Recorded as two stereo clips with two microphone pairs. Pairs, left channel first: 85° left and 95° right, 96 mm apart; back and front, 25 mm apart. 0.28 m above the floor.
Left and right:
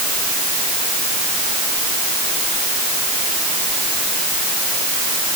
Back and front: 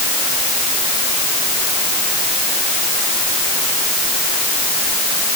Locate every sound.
Only background noise.